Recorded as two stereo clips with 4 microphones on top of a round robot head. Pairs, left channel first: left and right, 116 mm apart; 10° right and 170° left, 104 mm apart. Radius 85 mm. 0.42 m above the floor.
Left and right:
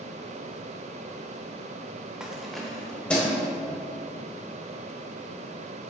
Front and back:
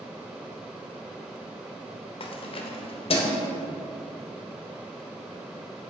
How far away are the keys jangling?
About 0.9 m.